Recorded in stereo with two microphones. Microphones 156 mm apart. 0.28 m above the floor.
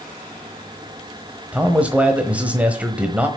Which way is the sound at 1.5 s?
10° right (ahead or behind).